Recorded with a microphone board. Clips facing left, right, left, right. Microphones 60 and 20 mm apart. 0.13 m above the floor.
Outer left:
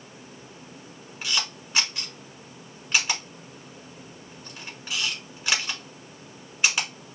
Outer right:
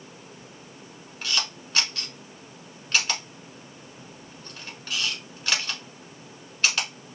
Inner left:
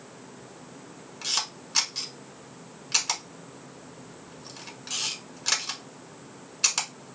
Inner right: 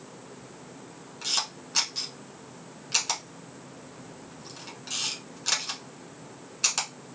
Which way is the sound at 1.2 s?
10° left (ahead or behind).